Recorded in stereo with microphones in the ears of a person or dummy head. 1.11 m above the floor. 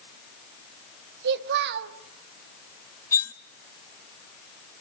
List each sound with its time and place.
1.2 s a child speaking: 65° right (ahead or behind), 1.3 m
3.1 s cutlery clinking: 10° left (ahead or behind), 0.7 m